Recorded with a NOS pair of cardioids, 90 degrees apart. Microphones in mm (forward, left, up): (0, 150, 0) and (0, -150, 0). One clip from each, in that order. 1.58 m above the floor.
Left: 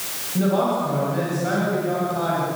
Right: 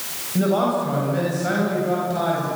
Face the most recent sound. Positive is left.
turn(degrees=-25)